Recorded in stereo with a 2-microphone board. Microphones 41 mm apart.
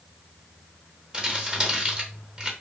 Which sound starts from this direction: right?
Crumpling, at 1.1 s.